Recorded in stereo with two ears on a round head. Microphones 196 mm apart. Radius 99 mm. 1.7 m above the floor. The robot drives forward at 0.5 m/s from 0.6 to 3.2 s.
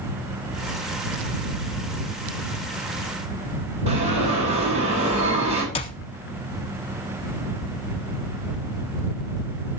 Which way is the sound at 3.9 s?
30° right (ahead or behind).